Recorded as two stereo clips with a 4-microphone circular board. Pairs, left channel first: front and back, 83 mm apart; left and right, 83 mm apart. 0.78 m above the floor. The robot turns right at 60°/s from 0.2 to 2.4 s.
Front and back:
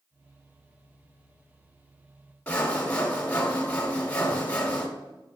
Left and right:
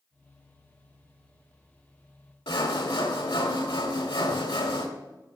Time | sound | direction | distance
2.5 | sawing | 75° left | 1.2 m